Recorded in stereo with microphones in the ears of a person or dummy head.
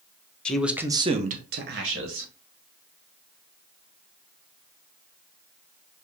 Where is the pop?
No pop in this recording.